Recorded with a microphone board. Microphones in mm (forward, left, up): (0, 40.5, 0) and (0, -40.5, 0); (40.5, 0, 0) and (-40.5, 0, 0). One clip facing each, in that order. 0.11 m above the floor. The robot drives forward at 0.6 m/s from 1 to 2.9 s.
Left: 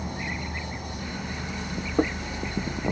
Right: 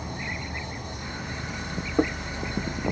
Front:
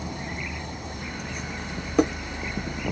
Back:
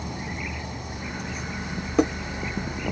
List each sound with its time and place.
0.0 s an insect: 85° left, 1.2 m; by 2.9 s 140° left, 1.6 m